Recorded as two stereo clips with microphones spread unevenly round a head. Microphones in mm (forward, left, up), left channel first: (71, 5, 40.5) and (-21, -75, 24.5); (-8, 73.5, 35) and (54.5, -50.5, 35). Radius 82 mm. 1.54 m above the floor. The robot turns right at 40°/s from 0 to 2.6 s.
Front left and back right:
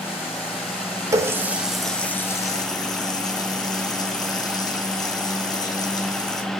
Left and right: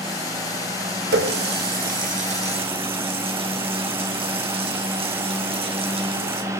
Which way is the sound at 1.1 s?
75° right.